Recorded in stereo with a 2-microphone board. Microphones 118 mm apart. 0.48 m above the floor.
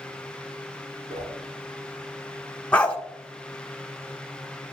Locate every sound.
1.1 s a whoosh: 80° right, 2.5 m
2.7 s a dog barking: 10° left (ahead or behind), 1.1 m